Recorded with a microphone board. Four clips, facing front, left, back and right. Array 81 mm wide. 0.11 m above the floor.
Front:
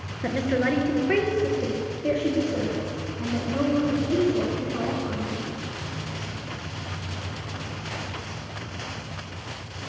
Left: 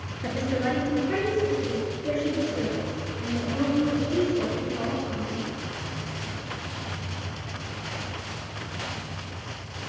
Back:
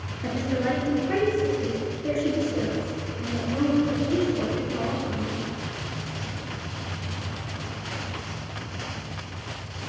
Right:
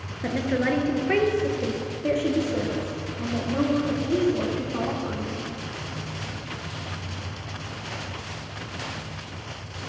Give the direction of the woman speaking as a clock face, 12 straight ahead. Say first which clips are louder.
Right 2 dB, front 2 dB; 1 o'clock.